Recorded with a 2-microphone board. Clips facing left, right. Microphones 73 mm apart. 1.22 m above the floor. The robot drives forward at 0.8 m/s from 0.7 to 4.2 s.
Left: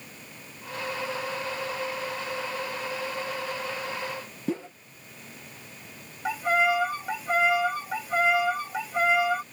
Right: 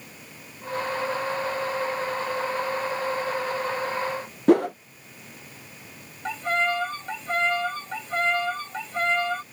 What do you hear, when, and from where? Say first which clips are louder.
4.5 s a whoosh: right 14 dB; 70° right (ahead or behind)
6.2 s a violin: left 2 dB; 10° left (ahead or behind)